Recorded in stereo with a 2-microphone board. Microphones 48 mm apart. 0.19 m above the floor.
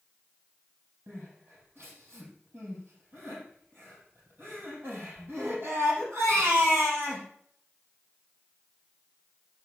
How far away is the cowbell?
I don't hear a cowbell.